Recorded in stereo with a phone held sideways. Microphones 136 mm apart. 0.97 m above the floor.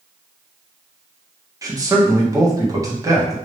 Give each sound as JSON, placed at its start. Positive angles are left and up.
{"t": 1.6, "sound": "a man speaking", "side_deg": -25, "distance_m": 1.3}